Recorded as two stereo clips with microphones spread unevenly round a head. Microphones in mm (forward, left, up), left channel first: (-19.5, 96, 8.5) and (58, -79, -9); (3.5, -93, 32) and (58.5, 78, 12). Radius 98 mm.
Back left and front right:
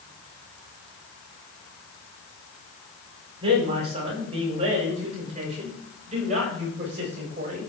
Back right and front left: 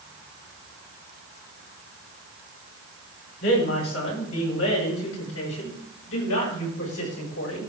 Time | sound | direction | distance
3.4 | a man speaking | 130° right | 5.5 m